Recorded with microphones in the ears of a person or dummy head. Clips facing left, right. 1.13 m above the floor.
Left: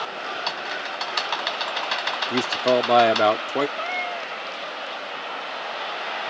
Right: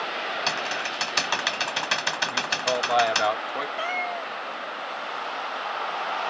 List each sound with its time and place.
0.5 s typing on a keyboard: 40° right (ahead or behind)
2.3 s a man speaking: 55° left (ahead or behind)
3.8 s a cat meowing: 10° right (ahead or behind)